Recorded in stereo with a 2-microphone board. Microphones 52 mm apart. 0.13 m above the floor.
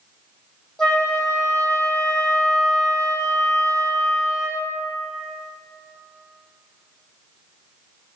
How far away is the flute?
About 2.0 m.